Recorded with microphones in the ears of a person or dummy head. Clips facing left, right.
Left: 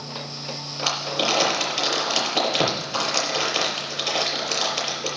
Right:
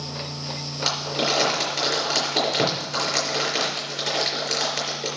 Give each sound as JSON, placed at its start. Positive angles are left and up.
{"t": 0.8, "sound": "crumpling", "side_deg": -60, "distance_m": 4.5}